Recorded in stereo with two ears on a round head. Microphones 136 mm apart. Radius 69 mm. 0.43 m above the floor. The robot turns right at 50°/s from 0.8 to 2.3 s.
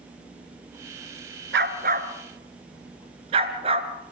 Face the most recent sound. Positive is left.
turn(degrees=-40)  # may be behind; listen again after turning